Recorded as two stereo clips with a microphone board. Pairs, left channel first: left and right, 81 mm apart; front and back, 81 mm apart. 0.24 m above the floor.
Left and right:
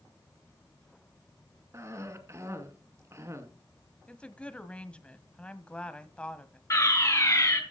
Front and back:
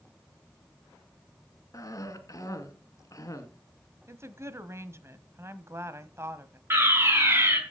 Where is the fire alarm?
125° left, 4 m.